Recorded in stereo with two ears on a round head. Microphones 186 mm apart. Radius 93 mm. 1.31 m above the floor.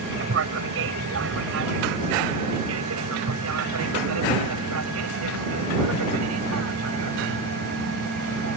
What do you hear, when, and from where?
0.0 s an aircraft: 55° right (ahead or behind); by 8.6 s 80° right